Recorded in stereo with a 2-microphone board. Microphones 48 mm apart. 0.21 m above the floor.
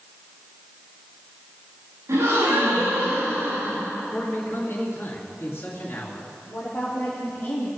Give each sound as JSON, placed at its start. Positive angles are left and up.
{"t": 2.1, "sound": "a gasp", "side_deg": -65, "distance_m": 6.0}
{"t": 4.1, "sound": "a man speaking", "side_deg": 50, "distance_m": 3.0}
{"t": 6.5, "sound": "a woman speaking", "side_deg": 35, "distance_m": 5.0}